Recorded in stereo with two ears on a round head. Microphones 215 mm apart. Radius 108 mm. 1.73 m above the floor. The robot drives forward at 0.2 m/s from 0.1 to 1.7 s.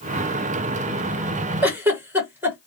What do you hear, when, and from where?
1.6 s a giggle: 10° right (ahead or behind), 1.8 m